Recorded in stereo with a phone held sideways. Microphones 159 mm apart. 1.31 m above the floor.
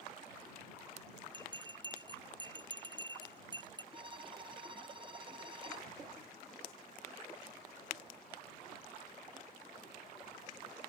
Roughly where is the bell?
Right.